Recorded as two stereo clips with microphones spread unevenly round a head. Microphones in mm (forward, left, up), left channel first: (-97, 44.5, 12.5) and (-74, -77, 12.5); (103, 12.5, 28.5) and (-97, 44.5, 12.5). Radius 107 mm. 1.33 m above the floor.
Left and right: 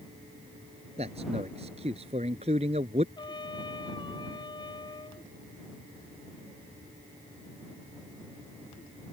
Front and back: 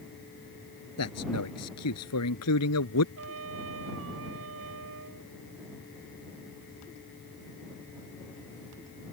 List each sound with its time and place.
1.0 s a man speaking: 15° right
3.2 s a trumpet: 155° left